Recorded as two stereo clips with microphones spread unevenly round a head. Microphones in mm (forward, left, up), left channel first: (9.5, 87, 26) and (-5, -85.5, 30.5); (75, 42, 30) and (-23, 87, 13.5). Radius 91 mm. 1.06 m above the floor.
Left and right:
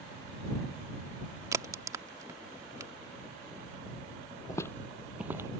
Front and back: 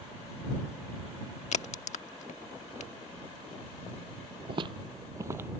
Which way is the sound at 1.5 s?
25° right.